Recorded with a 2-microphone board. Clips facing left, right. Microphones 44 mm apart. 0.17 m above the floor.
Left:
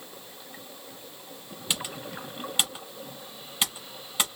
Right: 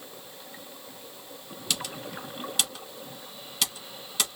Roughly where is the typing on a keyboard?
Left.